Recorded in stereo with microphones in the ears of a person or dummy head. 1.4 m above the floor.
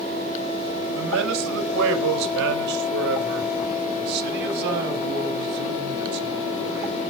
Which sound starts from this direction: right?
A man speaking, at 0.9 s.